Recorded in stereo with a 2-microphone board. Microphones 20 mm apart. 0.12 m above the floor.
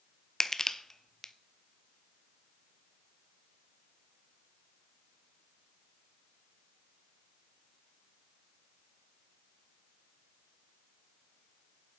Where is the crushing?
20° left (ahead or behind), 0.5 m.